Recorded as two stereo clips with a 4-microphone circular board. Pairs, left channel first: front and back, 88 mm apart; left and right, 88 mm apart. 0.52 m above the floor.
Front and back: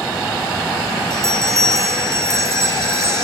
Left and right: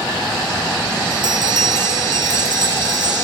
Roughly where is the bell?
Behind right.